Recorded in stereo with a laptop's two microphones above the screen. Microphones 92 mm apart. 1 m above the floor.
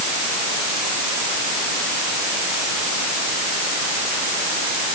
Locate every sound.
Only background noise.